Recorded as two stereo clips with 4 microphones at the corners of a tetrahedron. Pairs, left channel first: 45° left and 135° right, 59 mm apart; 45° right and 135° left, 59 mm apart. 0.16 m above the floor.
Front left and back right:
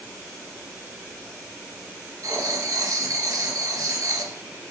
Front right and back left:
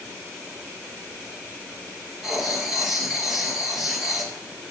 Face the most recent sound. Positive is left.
turn(degrees=-135)